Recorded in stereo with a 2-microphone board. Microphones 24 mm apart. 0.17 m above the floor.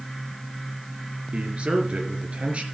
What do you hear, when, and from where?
1.3 s a man speaking: 50° right (ahead or behind), 3 m